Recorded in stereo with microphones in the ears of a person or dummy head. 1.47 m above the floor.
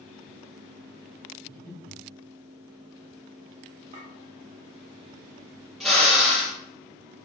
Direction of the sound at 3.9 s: 30° right (ahead or behind).